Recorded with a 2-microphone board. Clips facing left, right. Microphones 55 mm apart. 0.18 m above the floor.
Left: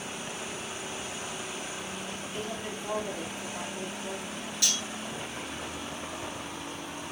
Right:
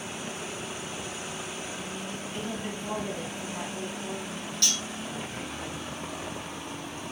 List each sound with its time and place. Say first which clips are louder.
2.3 s a woman speaking: right 1 dB; centre (ahead or behind), 3 m
4.6 s cutlery clinking: right 1 dB; 10° left (ahead or behind), 1.6 m